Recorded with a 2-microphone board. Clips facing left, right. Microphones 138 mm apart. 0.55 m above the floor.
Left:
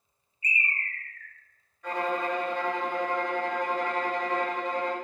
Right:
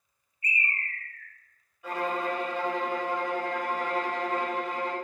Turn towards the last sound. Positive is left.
turn(degrees=-5)  # may be behind; listen again after turning